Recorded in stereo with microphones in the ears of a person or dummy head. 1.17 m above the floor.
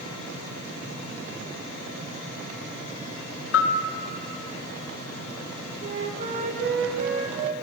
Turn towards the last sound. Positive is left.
turn(degrees=-35)  # may be behind; listen again after turning